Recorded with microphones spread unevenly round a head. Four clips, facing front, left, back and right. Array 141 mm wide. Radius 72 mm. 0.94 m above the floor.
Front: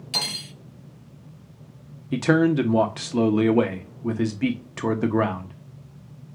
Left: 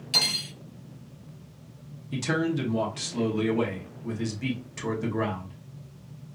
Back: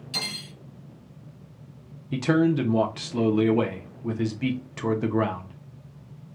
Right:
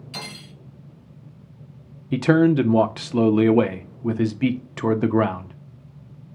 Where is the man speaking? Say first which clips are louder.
Right 11 dB, front 2 dB; 55° right, 0.7 m.